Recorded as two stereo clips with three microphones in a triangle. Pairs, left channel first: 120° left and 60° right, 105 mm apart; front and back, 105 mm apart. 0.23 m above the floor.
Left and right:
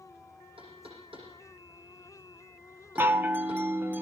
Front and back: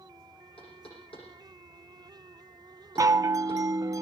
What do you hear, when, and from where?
0.6 s knocking: 30° right, 9.5 m
3.0 s a chime: 125° right, 0.7 m